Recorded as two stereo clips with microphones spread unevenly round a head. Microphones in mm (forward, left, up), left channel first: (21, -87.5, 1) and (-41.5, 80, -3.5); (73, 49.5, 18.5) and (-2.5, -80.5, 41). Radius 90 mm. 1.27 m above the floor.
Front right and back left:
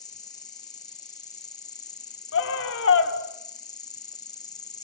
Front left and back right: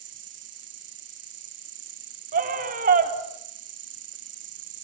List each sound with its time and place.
0.0 s an insect: 140° right, 1.1 m
2.3 s a scream: 90° right, 3.5 m